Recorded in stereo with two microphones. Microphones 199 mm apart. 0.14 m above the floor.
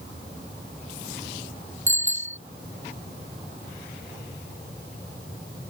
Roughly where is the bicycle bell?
Centre.